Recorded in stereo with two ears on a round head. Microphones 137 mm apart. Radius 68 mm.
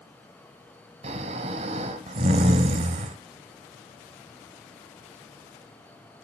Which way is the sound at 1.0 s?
45° right (ahead or behind).